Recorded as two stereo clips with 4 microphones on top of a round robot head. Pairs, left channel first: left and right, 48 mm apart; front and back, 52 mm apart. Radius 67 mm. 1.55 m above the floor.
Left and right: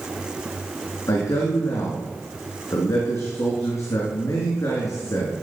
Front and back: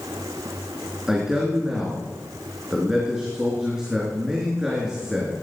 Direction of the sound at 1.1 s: 105° left.